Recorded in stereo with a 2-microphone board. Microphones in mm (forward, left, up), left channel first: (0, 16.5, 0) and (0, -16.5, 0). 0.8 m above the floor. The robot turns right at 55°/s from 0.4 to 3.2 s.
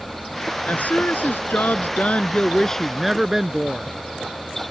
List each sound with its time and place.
0.7 s a woman speaking: 55° left; by 3.9 s 170° right